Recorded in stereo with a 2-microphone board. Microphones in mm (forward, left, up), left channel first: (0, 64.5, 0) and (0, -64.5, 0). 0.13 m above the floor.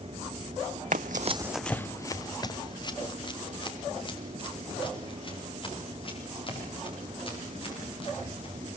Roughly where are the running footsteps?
Right.